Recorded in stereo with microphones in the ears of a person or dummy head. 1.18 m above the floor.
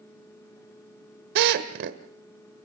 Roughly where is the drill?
Right.